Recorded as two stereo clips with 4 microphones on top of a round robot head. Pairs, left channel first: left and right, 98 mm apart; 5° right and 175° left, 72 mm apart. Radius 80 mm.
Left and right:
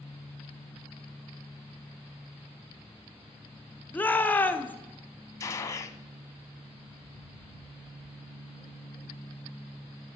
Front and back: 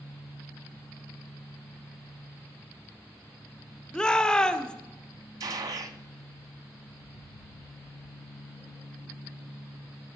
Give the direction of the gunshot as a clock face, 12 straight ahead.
7 o'clock.